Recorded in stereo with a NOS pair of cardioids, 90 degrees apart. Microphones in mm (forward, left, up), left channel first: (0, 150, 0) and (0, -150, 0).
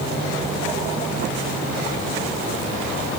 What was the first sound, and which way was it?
Only background noise.